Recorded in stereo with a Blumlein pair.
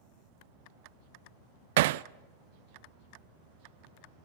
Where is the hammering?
55° right, 0.5 m.